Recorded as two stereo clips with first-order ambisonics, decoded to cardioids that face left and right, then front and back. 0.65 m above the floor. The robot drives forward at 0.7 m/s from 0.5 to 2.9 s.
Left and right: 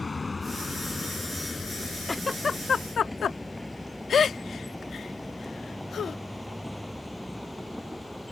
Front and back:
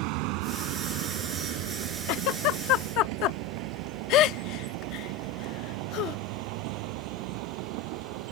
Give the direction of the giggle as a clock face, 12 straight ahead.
12 o'clock.